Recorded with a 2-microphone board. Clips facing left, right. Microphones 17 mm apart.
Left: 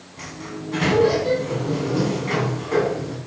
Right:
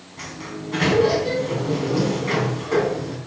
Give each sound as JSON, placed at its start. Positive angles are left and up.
{"t": 0.2, "sound": "a sliding door", "side_deg": -10, "distance_m": 4.0}